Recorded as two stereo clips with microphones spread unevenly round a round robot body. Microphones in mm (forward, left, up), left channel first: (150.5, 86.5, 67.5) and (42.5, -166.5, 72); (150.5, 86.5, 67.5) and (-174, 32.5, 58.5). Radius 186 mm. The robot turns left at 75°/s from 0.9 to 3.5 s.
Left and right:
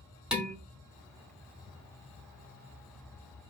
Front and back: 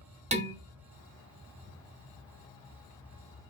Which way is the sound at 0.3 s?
160° left.